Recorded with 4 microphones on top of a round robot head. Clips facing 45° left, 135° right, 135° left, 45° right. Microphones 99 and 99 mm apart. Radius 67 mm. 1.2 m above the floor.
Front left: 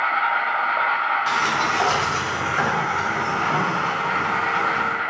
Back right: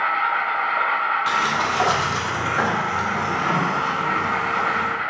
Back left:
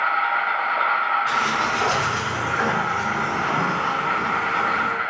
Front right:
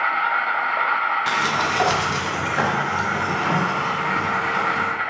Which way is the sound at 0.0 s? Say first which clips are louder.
Even, even; 15° right.